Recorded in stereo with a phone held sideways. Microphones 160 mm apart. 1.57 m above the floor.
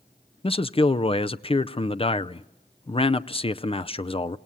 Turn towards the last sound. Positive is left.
turn(degrees=35)  # may be behind; listen again after turning